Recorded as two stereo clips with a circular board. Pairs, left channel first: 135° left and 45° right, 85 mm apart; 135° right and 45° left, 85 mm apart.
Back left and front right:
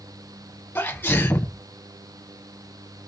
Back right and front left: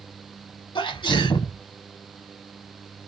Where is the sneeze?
160° right, 1.3 m.